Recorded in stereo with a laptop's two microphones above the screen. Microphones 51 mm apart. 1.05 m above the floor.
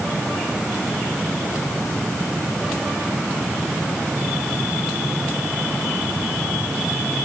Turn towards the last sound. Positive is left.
No sound to turn to.